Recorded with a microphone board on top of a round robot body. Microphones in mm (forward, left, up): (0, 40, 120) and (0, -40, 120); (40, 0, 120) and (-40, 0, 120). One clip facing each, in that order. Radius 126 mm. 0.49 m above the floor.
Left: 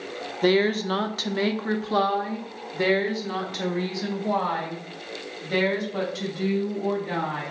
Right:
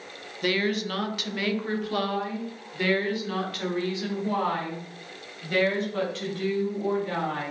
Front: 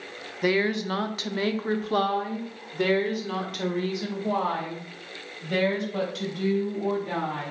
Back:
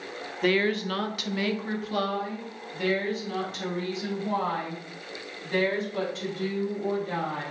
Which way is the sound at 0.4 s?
75° left.